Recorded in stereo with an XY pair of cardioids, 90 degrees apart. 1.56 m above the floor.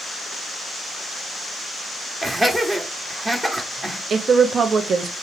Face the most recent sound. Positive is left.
turn(degrees=-55)